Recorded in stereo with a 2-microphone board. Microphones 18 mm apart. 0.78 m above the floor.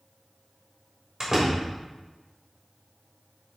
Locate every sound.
1.2 s a door slam: 30° right (ahead or behind), 2.5 m